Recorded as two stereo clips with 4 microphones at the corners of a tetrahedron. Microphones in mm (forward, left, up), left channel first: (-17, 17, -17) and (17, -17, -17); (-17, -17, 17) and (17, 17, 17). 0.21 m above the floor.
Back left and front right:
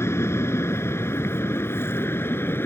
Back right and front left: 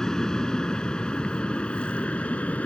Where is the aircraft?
150° left; by 2.7 s 165° left.